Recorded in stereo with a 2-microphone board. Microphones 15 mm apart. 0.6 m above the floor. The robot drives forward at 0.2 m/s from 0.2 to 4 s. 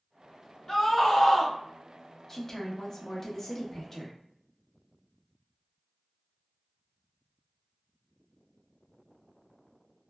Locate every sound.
0.7 s a scream: 15° left (ahead or behind), 1.3 m
2.3 s a woman speaking: 25° left (ahead or behind), 0.7 m